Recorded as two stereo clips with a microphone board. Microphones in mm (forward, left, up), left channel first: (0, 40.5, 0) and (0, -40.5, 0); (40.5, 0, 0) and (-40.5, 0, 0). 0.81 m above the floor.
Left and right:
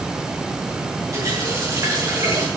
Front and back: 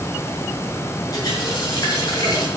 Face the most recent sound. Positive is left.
turn(degrees=-40)